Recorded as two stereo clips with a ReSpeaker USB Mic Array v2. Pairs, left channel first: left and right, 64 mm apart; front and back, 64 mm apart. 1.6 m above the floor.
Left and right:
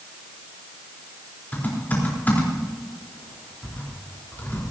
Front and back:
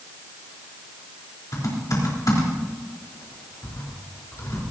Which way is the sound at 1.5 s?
25° left.